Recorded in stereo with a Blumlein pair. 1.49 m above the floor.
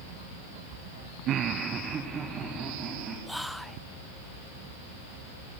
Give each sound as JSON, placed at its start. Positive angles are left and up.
{"t": 1.3, "sound": "laughter", "azimuth_deg": -35, "distance_m": 0.5}
{"t": 3.3, "sound": "whispering", "azimuth_deg": 0, "distance_m": 0.6}